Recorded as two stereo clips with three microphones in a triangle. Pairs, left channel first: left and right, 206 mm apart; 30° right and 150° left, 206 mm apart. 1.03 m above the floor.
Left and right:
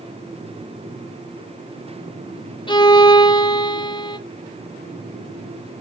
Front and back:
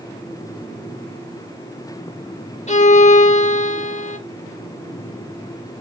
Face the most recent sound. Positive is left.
turn(degrees=25)